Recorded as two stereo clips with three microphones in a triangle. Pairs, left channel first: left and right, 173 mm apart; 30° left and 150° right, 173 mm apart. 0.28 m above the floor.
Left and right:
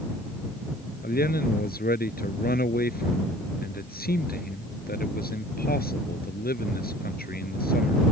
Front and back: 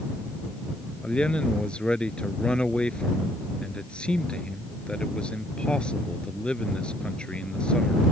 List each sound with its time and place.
1.0 s a man speaking: 115° left